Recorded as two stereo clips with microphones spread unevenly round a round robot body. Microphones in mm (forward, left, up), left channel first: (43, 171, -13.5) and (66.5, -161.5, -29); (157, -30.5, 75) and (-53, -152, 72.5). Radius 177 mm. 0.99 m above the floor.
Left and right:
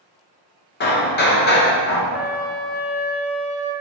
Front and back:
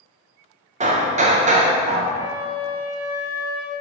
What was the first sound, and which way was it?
Hammering, 155° left.